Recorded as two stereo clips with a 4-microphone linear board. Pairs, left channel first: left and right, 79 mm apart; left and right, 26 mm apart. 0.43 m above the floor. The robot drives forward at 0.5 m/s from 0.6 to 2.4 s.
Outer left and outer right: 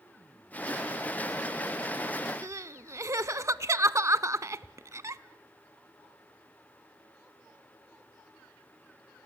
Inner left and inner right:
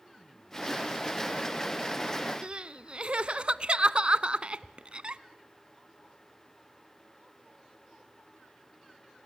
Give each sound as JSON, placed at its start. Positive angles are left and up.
{"t": 2.4, "sound": "crying", "side_deg": -40, "distance_m": 0.5}